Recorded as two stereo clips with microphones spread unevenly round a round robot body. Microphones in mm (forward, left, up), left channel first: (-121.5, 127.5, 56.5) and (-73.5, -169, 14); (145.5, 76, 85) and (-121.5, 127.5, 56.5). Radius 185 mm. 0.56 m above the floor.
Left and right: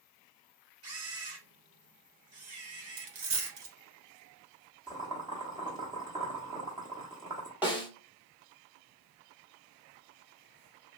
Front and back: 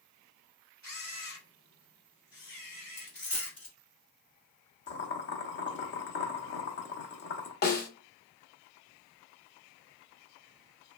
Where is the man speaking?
No man speaking in this recording.